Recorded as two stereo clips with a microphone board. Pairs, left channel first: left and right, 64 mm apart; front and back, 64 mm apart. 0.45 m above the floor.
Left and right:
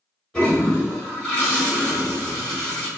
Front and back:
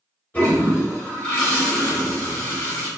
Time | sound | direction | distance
0.3 | a toilet flushing | 30° left | 1.3 m